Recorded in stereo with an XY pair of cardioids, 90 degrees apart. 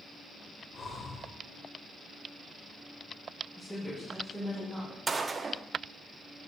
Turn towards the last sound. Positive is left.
turn(degrees=-35)